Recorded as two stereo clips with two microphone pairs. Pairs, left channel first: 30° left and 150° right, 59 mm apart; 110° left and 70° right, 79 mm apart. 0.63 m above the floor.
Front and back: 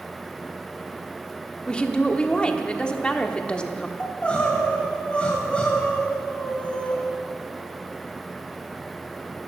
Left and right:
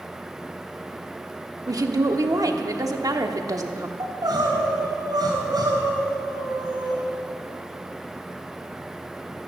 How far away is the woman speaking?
About 1.1 m.